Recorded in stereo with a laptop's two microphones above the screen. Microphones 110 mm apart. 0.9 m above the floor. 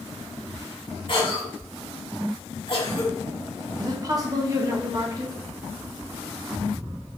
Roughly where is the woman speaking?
Right.